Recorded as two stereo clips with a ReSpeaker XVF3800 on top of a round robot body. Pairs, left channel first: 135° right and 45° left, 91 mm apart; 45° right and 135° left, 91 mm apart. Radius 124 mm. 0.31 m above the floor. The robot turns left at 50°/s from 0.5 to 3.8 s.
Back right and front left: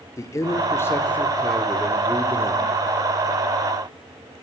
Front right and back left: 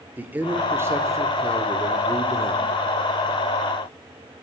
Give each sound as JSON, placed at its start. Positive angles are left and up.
{"t": 0.2, "sound": "a man speaking", "azimuth_deg": -165, "distance_m": 1.5}